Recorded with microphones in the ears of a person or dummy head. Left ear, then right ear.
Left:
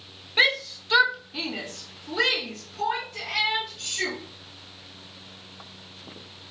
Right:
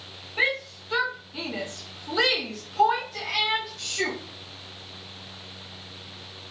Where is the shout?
45° left (ahead or behind), 1.0 m; by 4.2 s 65° right (ahead or behind), 1.9 m.